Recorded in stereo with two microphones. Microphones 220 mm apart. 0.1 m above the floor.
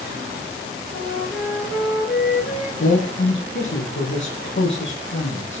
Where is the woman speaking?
60° left (ahead or behind), 4 m.